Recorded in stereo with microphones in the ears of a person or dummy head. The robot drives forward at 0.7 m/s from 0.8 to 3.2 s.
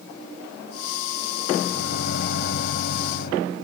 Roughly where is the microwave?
Left.